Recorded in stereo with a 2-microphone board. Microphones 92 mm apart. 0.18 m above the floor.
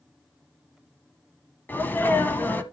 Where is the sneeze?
20° left (ahead or behind), 1.0 m.